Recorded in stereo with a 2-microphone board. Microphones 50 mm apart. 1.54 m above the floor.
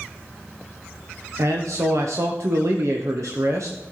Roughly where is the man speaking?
Right.